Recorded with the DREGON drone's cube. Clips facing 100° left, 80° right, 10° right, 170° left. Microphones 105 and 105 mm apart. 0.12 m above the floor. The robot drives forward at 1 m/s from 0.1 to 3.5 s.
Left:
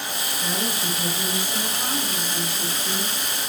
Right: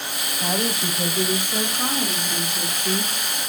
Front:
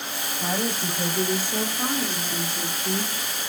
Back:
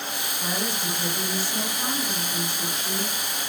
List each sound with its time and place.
0.4 s a woman speaking: 45° right, 10 m; by 3.1 s 60° right, 8 m